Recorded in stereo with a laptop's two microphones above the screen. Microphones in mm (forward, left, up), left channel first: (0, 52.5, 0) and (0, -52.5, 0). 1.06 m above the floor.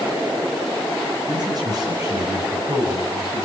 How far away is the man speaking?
About 7 m.